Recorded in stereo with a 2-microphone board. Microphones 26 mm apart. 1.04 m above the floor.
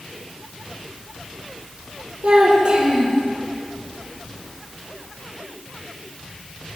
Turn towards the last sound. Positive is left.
turn(degrees=-40)  # may be behind; listen again after turning